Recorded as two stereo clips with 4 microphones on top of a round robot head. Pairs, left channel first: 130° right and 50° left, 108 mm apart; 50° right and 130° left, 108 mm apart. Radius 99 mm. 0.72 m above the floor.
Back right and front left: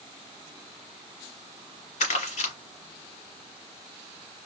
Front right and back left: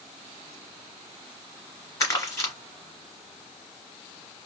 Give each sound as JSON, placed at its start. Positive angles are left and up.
{"t": 2.0, "sound": "crumpling", "azimuth_deg": -115, "distance_m": 1.4}